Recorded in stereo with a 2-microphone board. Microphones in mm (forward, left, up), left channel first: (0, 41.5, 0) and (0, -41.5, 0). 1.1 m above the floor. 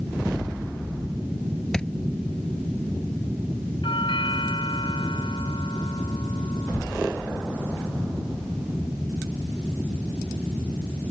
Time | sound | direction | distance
1.7 | a thud | 10° left (ahead or behind) | ?
3.8 | a doorbell | 85° left | ?